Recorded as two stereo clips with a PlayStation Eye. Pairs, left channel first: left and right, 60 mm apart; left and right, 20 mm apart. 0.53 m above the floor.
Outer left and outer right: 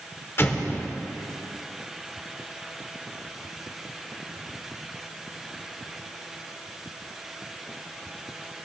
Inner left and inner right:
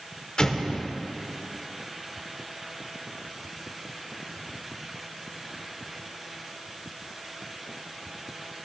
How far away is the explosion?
About 1.1 m.